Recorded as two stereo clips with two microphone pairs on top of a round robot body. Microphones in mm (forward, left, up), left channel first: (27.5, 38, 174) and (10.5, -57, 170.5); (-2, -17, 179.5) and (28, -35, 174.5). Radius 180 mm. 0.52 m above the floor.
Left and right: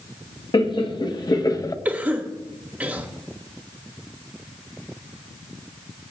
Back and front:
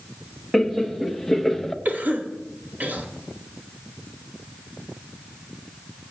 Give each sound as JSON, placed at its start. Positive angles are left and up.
{"t": 0.5, "sound": "laughter", "azimuth_deg": 55, "distance_m": 1.4}
{"t": 1.9, "sound": "a cough", "azimuth_deg": -30, "distance_m": 1.8}